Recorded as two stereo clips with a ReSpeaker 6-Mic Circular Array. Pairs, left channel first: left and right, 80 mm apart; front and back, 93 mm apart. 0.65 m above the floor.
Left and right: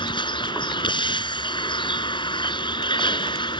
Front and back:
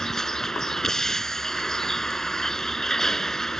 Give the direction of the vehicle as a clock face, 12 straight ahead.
9 o'clock.